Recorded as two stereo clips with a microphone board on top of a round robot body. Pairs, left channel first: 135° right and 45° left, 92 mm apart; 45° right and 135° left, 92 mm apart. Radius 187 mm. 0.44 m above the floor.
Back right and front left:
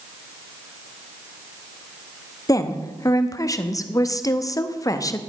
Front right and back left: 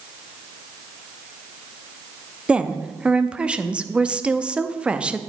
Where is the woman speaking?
150° right, 0.9 m.